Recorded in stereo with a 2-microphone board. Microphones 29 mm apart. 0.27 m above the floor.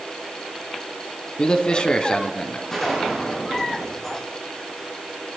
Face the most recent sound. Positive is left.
turn(degrees=15)  # may be behind; listen again after turning